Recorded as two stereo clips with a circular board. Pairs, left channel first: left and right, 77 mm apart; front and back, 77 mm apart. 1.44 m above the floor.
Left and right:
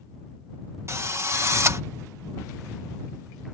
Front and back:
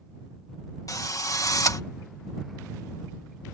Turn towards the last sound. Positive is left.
turn(degrees=-40)